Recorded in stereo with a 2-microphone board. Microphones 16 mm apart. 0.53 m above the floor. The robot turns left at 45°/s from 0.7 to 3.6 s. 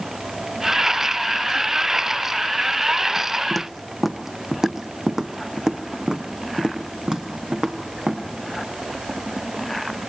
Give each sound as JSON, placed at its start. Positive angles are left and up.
{"t": 3.5, "sound": "footsteps", "side_deg": -5, "distance_m": 1.1}